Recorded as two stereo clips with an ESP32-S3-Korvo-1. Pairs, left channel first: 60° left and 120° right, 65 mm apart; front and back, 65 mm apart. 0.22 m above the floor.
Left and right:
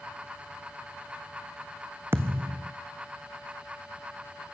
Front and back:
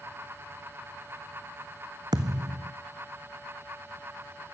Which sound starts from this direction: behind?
A thud, at 2.1 s.